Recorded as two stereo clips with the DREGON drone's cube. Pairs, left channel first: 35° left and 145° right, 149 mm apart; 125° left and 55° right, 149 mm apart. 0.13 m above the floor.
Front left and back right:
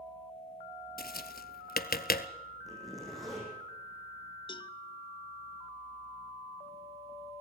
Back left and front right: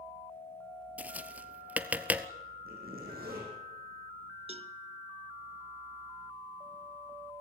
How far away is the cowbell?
About 0.6 m.